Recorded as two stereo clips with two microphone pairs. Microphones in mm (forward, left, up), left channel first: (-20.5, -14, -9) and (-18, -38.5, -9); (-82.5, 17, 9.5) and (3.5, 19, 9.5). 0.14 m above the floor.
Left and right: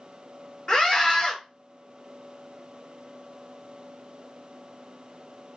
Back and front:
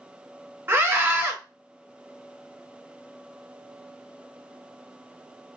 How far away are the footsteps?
I don't hear footsteps.